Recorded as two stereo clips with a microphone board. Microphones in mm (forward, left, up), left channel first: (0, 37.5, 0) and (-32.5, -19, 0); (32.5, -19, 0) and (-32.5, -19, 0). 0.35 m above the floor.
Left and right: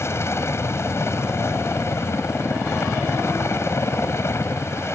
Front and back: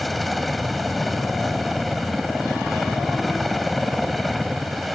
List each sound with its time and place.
0.0 s a helicopter: 90° left